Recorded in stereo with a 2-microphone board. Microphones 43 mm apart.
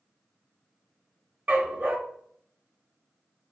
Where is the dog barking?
45° right (ahead or behind), 0.7 m.